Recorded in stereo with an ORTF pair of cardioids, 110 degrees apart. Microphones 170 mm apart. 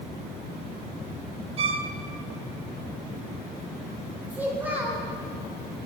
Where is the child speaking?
10° right, 3 m.